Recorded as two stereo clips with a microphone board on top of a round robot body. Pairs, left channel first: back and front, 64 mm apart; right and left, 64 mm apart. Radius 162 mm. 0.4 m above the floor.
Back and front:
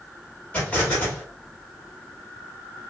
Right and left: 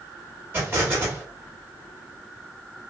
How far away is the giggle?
No giggle in this recording.